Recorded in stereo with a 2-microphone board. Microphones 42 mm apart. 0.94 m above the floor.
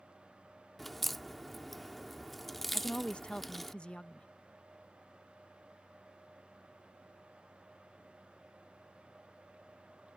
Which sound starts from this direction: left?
A woman speaking, at 2.7 s.